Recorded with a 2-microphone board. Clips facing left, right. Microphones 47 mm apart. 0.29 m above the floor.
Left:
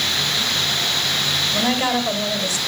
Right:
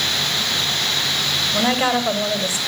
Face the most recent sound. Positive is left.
turn(degrees=-20)  # may be behind; listen again after turning